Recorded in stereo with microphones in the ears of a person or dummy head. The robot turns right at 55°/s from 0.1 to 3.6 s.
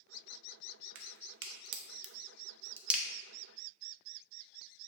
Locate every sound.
0.9 s a crack: 60° right (ahead or behind), 0.5 m; by 3.0 s 5° left (ahead or behind), 0.5 m